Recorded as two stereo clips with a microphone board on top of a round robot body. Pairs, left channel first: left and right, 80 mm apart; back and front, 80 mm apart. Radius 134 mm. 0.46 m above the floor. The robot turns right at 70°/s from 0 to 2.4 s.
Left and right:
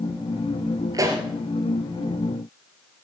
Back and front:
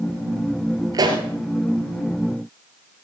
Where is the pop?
45° right, 2.0 m; by 1.2 s 25° right, 2.0 m.